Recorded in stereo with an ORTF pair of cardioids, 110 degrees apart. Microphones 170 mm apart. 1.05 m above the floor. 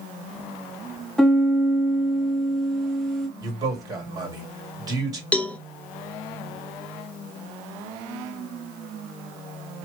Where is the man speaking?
20° right, 2 m.